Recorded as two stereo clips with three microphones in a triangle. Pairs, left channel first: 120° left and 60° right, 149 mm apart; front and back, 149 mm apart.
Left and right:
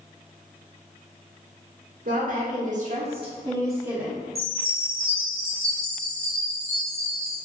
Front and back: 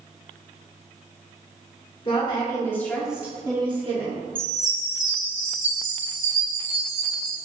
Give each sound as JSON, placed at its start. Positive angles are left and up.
{"t": 2.0, "sound": "a woman speaking", "azimuth_deg": -50, "distance_m": 1.3}
{"t": 4.3, "sound": "a chime", "azimuth_deg": 5, "distance_m": 1.3}